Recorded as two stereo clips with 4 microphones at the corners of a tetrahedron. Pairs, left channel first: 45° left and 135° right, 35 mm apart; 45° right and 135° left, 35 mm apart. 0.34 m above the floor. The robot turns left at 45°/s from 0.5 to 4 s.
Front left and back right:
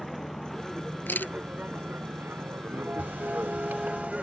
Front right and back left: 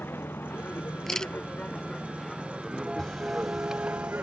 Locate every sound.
0.0 s a vehicle: 40° right; by 4.2 s 160° left
1.1 s a camera shutter: 35° left; by 1.3 s 25° left
3.0 s a camera shutter: 120° right; by 4.2 s 165° right